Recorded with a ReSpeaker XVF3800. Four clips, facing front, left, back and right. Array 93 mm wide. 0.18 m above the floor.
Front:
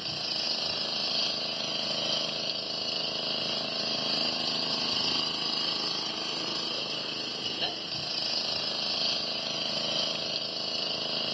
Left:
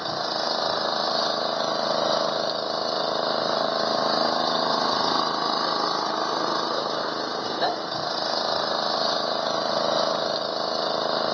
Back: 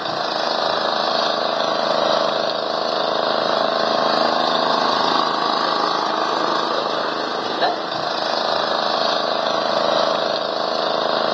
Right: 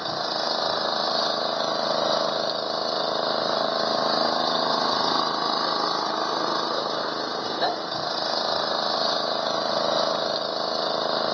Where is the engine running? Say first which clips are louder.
Even, back 18 dB; 175° left.